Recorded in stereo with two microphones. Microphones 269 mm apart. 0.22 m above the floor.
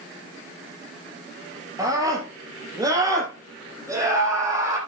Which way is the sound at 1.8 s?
15° right (ahead or behind).